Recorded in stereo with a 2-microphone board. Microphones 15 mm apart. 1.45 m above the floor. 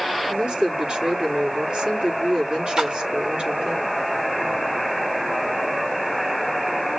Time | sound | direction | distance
0.3 | a woman speaking | 70° right (ahead or behind) | 5 m
2.8 | a splash | 45° right (ahead or behind) | 3 m